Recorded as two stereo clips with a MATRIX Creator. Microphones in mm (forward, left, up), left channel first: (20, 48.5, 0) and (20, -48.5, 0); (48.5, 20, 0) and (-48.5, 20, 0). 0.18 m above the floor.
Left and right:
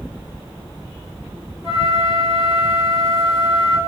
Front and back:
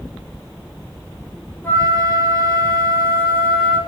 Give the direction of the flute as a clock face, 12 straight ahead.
10 o'clock.